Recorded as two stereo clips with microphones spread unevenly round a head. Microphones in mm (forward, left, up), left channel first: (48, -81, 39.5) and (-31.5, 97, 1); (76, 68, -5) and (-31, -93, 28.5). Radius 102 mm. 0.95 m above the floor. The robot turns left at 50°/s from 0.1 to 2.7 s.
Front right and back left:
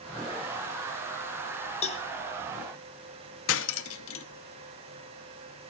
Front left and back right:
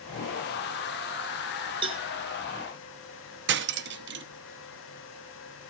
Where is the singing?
I don't hear singing.